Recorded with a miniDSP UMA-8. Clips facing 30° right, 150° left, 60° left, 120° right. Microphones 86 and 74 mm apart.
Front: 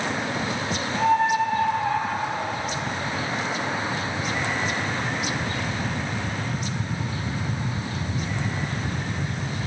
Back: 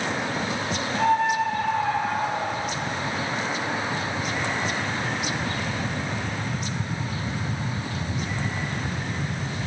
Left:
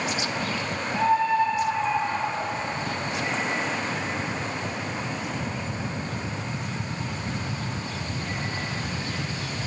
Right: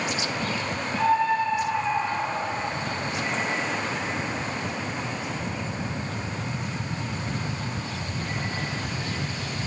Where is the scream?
140° left, 5 m; by 2.7 s 155° left, 7 m.